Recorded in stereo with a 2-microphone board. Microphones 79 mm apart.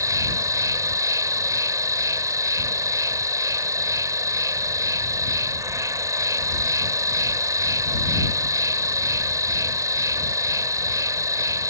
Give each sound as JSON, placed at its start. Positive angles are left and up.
{"t": 0.0, "sound": "an insect", "side_deg": -45}